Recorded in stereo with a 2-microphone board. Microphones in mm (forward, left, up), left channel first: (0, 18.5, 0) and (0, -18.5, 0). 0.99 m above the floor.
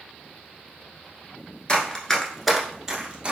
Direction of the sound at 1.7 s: 25° left (ahead or behind).